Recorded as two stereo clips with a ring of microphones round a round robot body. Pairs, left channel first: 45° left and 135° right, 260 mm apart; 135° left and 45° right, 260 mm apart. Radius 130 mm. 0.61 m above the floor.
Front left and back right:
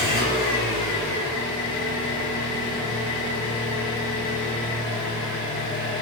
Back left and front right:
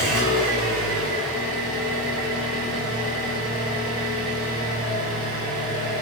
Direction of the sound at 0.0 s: 15° right.